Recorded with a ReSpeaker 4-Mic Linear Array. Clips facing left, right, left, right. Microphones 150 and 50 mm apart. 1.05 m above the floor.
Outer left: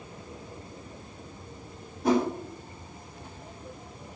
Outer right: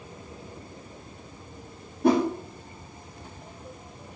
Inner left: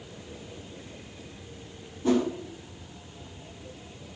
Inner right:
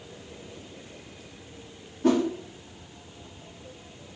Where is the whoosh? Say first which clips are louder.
Outer right 3 dB, inner right 2 dB; 65° right (ahead or behind), 1.0 m.